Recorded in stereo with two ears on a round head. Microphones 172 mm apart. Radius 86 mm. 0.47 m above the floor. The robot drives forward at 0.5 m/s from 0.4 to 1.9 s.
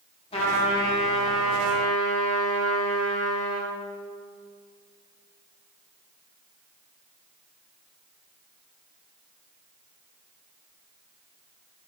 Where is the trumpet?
30° left (ahead or behind), 3 m; by 3.7 s 25° left (ahead or behind), 3.5 m.